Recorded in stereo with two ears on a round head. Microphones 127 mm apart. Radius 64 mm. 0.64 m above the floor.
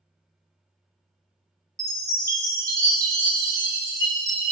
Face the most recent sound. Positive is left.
turn(degrees=-25)  # may be behind; listen again after turning